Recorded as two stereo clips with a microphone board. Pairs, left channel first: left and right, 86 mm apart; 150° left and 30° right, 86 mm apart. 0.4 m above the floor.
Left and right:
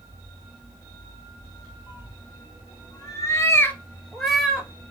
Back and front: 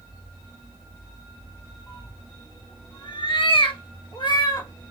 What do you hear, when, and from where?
1.9 s a cat meowing: 105° left, 1.7 m; by 4.7 s 170° right, 1.3 m